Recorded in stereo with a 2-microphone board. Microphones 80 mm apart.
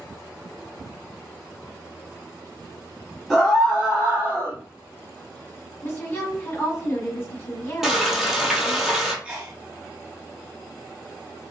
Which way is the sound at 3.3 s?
Centre (ahead or behind).